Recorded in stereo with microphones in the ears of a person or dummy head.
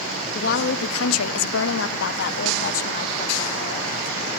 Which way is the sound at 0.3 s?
45° left (ahead or behind).